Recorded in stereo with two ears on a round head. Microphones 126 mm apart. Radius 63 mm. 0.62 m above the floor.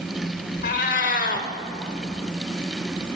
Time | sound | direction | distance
0.6 | a cat meowing | 65° left (ahead or behind) | 1.0 m